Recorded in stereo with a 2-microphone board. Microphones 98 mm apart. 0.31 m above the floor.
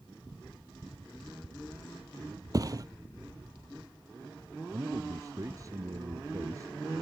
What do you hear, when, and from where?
2.5 s a thud: 40° right (ahead or behind)
4.7 s a man speaking: 35° right (ahead or behind)